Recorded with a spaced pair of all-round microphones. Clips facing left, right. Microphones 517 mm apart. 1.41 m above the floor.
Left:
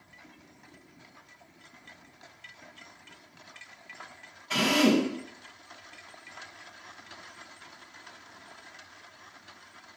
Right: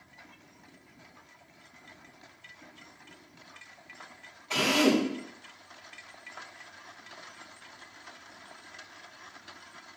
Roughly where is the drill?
Left.